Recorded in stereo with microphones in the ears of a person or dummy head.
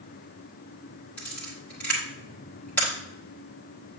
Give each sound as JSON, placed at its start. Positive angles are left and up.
{"t": 1.2, "sound": "a camera shutter", "side_deg": 5, "distance_m": 1.4}